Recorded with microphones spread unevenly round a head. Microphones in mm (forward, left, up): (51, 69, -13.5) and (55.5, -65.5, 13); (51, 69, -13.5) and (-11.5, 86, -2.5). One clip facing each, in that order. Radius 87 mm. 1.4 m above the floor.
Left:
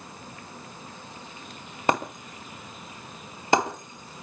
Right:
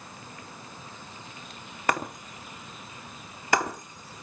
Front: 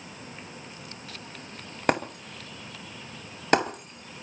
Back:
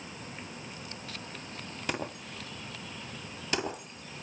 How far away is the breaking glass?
About 2.5 m.